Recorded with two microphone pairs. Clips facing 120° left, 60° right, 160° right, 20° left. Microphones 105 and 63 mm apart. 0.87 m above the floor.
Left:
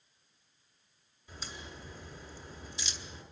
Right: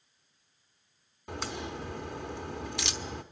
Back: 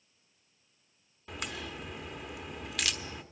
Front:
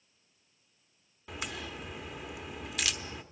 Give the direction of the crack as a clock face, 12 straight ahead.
2 o'clock.